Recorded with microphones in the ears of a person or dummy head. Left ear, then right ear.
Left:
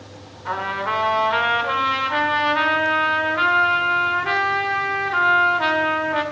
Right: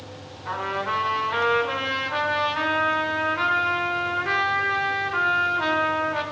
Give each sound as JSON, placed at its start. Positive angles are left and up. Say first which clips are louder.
{"t": 0.5, "sound": "a trumpet", "louder": "left 3 dB", "side_deg": 20, "distance_m": 1.9}